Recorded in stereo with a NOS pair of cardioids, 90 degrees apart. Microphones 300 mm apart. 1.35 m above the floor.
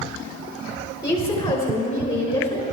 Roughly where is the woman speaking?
Ahead.